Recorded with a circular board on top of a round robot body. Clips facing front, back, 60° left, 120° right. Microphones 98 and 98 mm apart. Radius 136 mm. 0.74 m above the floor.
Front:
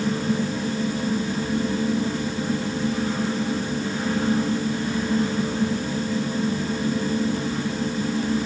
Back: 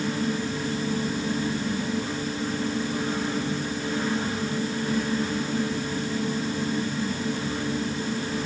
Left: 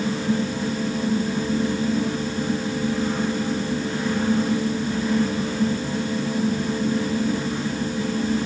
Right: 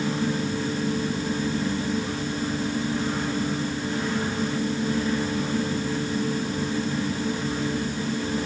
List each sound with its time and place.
Only background noise.